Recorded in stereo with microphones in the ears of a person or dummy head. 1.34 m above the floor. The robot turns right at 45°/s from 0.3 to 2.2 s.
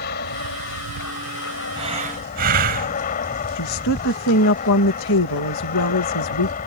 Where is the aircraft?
55° left; by 6.7 s 140° left.